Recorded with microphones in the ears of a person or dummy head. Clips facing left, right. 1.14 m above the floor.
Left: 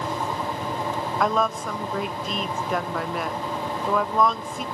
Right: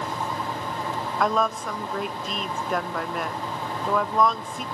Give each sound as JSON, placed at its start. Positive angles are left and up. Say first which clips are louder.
{"t": 1.2, "sound": "a woman speaking", "louder": "even", "side_deg": 0, "distance_m": 0.6}